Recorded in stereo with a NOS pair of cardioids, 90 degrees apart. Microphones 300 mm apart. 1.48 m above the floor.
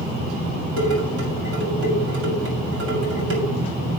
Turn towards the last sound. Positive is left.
turn(degrees=-55)